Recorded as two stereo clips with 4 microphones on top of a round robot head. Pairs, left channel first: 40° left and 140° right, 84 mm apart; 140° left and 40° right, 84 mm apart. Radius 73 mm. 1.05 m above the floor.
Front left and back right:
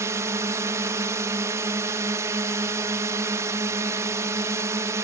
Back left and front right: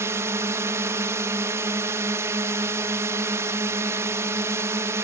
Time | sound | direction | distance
0.0 | a drone | 90° right | ?